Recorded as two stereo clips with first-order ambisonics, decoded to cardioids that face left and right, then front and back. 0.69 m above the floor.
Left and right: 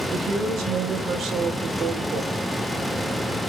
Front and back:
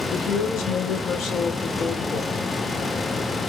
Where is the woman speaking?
35° right, 3 m; by 2.4 s 40° right, 1.9 m.